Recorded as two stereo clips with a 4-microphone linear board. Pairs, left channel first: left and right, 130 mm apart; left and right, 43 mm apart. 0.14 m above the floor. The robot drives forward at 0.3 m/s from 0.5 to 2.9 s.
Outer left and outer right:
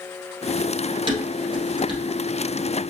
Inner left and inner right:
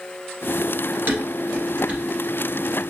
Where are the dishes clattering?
40° right (ahead or behind), 1.7 m; by 2.0 s 35° right (ahead or behind), 1.9 m.